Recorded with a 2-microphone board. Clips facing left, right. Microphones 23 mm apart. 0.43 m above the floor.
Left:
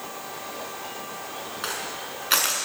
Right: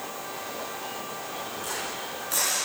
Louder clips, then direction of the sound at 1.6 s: Left 4 dB; 65° left (ahead or behind).